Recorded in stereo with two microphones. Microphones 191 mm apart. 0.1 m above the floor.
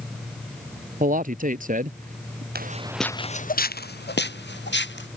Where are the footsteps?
55° right (ahead or behind); by 5.1 s 70° left (ahead or behind).